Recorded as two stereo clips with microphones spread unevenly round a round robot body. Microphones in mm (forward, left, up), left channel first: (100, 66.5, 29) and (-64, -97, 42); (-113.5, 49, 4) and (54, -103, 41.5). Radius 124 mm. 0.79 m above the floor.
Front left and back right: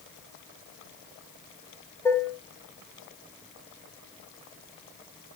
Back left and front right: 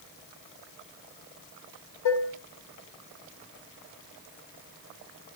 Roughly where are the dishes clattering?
Behind left.